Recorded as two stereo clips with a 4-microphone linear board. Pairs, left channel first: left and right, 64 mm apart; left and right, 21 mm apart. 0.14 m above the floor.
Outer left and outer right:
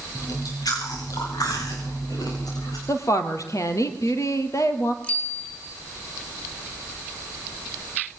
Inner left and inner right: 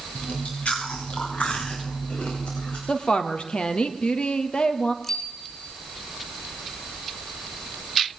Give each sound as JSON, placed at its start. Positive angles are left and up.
{"t": 0.1, "sound": "chewing", "side_deg": 70, "distance_m": 8.0}
{"t": 2.9, "sound": "a woman speaking", "side_deg": 55, "distance_m": 3.0}
{"t": 5.0, "sound": "a bicycle bell", "side_deg": 15, "distance_m": 6.0}